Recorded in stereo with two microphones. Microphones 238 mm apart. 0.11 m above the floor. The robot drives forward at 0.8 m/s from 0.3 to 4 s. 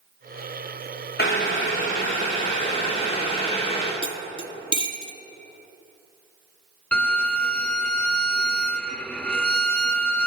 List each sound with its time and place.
1.2 s boiling: 45° left (ahead or behind), 2.5 m; by 3.9 s 25° left (ahead or behind), 4 m
4.0 s cutlery clinking: 25° left (ahead or behind), 0.7 m
6.9 s a violin: 5° left (ahead or behind), 0.6 m